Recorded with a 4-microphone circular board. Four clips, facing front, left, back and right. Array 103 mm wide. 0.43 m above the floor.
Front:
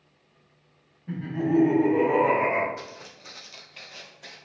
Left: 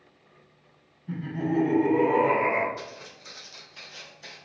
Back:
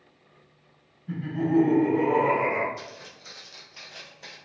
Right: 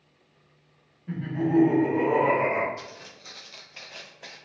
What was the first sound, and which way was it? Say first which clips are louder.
Laughter: right 3 dB, even; 50° right.